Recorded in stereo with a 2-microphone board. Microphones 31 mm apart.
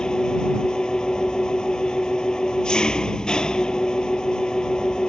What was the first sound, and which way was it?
An engine running, 25° left (ahead or behind).